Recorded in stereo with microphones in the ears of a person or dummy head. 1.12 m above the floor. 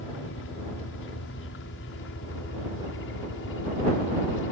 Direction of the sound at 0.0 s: 65° left (ahead or behind).